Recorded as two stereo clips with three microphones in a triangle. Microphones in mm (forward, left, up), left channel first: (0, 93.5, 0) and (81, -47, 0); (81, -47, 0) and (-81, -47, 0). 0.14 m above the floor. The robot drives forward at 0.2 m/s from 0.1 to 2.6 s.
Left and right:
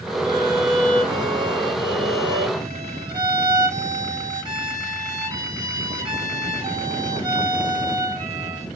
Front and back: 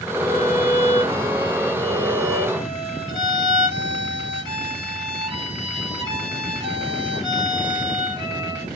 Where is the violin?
115° right, 2.5 m; by 8.7 s 125° right, 2.5 m.